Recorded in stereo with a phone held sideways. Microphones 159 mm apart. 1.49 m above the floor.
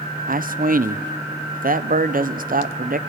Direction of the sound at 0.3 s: 65° right (ahead or behind).